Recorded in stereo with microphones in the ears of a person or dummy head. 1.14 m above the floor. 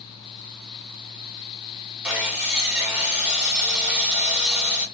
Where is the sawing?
5° right (ahead or behind), 0.9 m.